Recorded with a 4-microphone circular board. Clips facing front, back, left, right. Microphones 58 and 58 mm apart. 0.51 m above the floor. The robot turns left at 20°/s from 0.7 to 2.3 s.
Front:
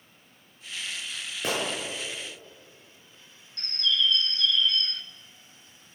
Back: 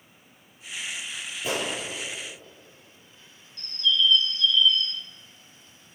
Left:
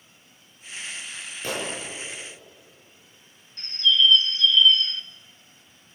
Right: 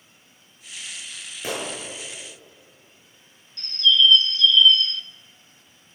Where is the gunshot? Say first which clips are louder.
Even, right 1 dB; 15° right, 7.5 m; by 1.7 s 20° right, 7.5 m.